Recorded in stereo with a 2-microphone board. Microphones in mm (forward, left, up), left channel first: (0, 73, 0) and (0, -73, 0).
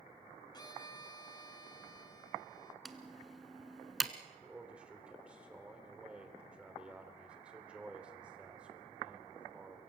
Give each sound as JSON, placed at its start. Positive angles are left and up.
{"t": 0.5, "sound": "a violin", "side_deg": 30, "distance_m": 1.0}
{"t": 2.9, "sound": "typing on a keyboard", "side_deg": 0, "distance_m": 1.2}
{"t": 4.4, "sound": "a man speaking", "side_deg": -5, "distance_m": 3.0}